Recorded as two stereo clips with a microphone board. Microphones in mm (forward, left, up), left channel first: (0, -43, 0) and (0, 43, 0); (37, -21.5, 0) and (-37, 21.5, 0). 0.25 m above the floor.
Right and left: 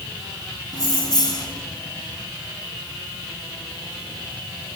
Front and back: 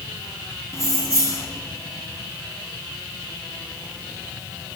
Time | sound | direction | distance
0.7 | keys jangling | 75° right | 1.2 m